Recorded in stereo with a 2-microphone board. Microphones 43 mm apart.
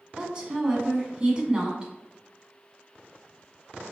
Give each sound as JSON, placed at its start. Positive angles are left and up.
{"t": 0.2, "sound": "a woman speaking", "side_deg": -20, "distance_m": 1.3}